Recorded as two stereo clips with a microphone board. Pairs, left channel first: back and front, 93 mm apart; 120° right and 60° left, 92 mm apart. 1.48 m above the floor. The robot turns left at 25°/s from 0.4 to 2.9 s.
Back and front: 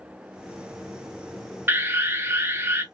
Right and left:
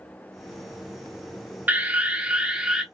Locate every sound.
1.7 s an alarm: 20° left, 0.6 m; by 2.8 s 10° right, 0.6 m